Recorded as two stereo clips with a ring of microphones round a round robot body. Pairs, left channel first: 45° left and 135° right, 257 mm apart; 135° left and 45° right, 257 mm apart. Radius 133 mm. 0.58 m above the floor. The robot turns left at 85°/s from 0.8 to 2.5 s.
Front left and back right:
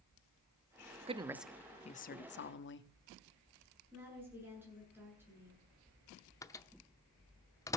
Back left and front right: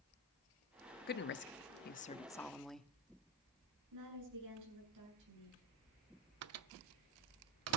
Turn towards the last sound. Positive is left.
turn(degrees=-30)